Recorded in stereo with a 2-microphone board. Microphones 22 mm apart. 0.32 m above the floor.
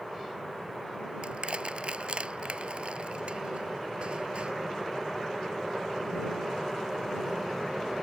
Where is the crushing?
55° right (ahead or behind).